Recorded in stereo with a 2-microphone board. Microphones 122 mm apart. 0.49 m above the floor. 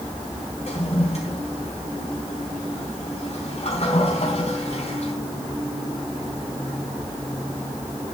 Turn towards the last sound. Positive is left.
turn(degrees=60)  # may be behind; listen again after turning